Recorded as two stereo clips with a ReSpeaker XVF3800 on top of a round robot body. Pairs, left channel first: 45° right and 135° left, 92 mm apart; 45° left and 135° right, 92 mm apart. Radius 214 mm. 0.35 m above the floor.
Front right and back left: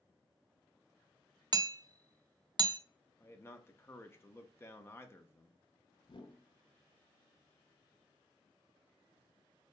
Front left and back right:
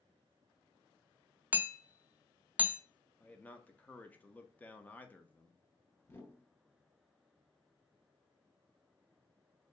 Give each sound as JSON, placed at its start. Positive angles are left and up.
{"t": 1.5, "sound": "hammering", "azimuth_deg": 155, "distance_m": 0.7}
{"t": 3.2, "sound": "a man speaking", "azimuth_deg": -10, "distance_m": 1.0}
{"t": 6.0, "sound": "a whoosh", "azimuth_deg": -20, "distance_m": 0.9}